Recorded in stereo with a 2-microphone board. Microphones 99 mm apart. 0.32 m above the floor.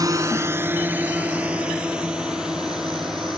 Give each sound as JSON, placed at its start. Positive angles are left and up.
{"t": 0.0, "sound": "a drone", "side_deg": -40}